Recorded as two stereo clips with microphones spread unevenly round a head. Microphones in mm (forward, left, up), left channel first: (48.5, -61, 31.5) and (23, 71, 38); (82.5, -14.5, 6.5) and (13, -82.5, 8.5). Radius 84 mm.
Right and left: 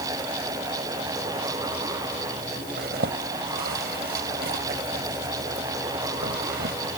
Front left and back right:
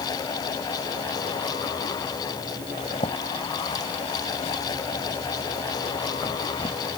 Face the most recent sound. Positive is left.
turn(degrees=100)